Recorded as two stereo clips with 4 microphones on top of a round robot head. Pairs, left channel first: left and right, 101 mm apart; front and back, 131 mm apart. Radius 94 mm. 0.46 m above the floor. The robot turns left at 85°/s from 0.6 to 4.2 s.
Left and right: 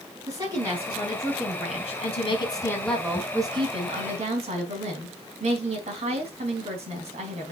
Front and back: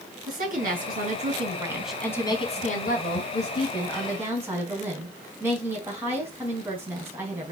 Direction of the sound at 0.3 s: 155° right.